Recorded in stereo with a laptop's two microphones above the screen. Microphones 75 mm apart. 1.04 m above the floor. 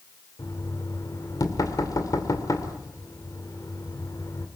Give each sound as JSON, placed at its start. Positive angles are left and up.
{"t": 0.4, "sound": "knocking", "side_deg": 50, "distance_m": 2.5}